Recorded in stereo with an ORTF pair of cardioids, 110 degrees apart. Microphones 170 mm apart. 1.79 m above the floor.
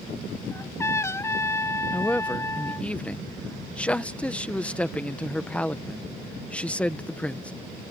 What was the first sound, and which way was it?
A trumpet, 15° left.